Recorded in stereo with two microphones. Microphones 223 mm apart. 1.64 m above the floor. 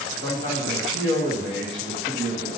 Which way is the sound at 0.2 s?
55° right (ahead or behind).